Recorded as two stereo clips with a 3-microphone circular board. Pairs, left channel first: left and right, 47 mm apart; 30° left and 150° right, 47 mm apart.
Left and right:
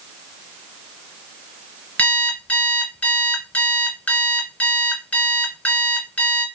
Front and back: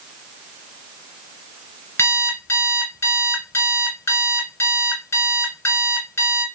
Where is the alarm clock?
35° left, 2 m.